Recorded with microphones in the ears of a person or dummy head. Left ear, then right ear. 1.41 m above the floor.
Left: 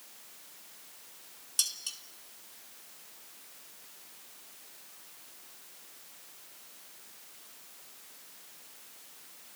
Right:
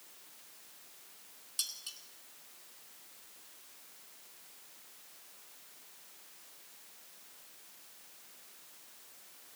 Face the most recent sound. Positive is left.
turn(degrees=15)  # may be behind; listen again after turning